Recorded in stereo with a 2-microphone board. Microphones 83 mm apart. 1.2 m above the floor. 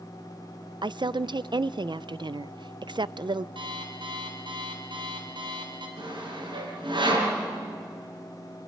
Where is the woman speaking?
65° right (ahead or behind), 0.5 m.